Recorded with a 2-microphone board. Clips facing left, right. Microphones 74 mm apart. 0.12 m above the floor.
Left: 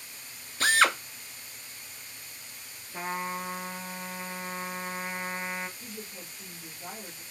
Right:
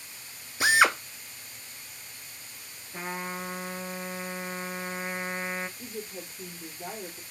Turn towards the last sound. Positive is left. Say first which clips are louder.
# right 4 dB
turn(degrees=-50)  # may be behind; listen again after turning